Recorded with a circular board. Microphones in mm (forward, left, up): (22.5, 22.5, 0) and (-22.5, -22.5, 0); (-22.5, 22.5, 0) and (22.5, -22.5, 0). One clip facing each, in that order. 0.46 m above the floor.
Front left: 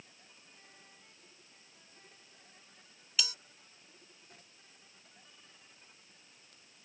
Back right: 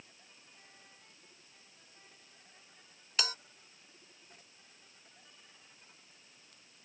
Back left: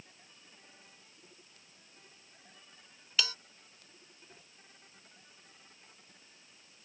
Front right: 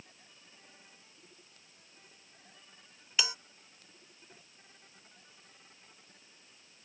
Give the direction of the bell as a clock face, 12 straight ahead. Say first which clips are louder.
Back right 1 dB, even; 4 o'clock.